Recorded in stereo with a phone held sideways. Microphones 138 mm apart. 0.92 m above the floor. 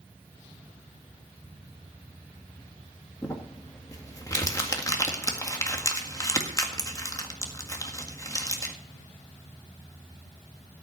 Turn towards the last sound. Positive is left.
turn(degrees=25)  # may be behind; listen again after turning